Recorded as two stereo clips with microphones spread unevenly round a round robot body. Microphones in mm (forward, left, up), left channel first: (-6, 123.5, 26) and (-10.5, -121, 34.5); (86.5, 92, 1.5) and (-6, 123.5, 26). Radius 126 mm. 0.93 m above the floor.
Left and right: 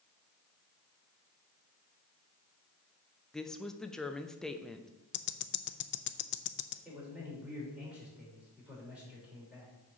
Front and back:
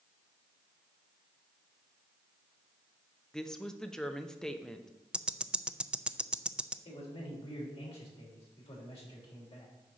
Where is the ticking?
70° left, 0.5 m.